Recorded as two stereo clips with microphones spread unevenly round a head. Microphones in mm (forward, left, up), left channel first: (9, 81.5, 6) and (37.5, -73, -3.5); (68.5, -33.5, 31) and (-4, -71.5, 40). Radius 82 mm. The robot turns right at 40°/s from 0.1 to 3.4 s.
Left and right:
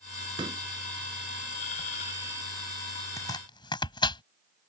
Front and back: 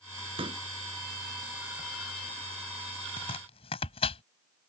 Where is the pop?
145° right; by 0.6 s 135° right.